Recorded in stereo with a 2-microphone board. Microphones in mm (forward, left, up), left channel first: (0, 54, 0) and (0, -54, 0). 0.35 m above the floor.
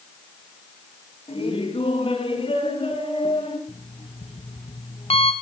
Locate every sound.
1.3 s laughter: 65° left (ahead or behind), 4 m; by 3.6 s 60° left (ahead or behind), 5.5 m
3.7 s an alarm clock: 65° left (ahead or behind), 1.8 m